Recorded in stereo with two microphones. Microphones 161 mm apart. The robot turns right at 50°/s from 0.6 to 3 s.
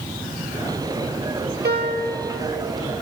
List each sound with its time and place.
1.6 s a piano: 85° right, 0.8 m; by 2.2 s 65° right (ahead or behind), 0.8 m